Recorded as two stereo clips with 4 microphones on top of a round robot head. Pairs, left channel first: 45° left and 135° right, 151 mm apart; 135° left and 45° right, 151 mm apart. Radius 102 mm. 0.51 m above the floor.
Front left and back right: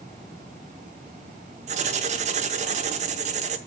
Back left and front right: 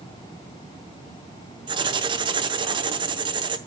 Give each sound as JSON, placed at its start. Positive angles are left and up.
{"t": 1.7, "sound": "writing", "azimuth_deg": -100, "distance_m": 0.8}